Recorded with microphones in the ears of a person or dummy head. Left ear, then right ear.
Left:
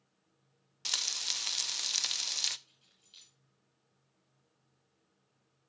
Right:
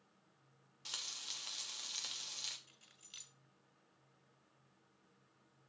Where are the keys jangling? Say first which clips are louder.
Right 3 dB; 55° right (ahead or behind), 1.4 m.